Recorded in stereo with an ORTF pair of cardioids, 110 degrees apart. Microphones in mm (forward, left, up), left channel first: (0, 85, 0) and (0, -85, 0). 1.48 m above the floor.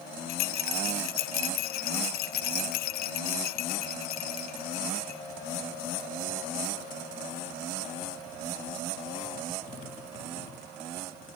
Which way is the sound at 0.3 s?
65° left.